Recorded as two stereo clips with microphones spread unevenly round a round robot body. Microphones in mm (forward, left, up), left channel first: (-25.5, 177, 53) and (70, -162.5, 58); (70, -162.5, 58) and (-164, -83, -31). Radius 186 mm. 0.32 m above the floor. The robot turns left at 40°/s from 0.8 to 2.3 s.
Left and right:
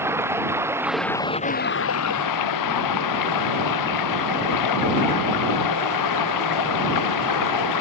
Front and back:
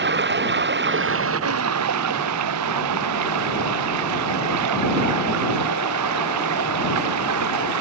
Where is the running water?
160° right; by 7.8 s 140° left.